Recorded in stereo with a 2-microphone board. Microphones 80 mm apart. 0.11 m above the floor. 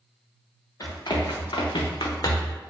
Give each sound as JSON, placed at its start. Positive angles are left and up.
{"t": 0.8, "sound": "running footsteps", "side_deg": 55, "distance_m": 1.1}